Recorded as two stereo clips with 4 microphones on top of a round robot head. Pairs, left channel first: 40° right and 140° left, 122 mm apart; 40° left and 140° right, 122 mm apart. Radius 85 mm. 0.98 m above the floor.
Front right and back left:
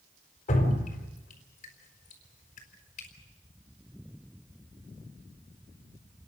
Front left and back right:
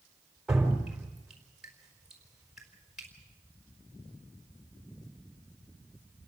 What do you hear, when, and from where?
0.5 s dripping: 55° right, 4 m